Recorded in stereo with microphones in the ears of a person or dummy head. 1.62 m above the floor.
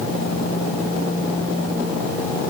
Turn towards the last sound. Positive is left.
No sound to turn to.